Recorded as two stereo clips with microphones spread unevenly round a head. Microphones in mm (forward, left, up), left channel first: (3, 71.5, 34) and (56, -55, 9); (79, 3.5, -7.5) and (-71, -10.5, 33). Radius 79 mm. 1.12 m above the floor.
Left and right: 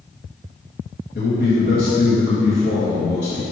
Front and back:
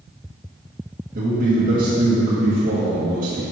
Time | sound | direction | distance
1.1 | a man speaking | 145° left | 1.2 m